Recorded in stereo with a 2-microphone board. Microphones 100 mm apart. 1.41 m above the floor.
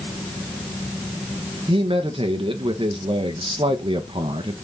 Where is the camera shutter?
I don't hear a camera shutter.